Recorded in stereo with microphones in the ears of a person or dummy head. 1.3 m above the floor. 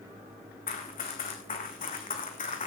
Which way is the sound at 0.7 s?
40° left (ahead or behind).